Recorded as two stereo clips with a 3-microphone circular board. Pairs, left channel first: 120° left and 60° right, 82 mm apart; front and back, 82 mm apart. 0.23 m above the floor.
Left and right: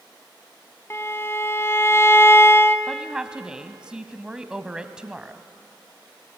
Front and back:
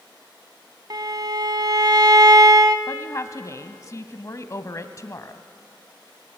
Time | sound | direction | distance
0.9 | a violin | 170° left | 0.8 m
2.9 | a woman speaking | 15° left | 1.3 m